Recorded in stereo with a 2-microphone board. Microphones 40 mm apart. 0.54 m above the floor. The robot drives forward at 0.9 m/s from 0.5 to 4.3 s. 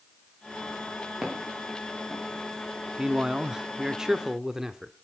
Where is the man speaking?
15° right (ahead or behind), 0.9 m; by 4.9 s 10° right (ahead or behind), 1.2 m.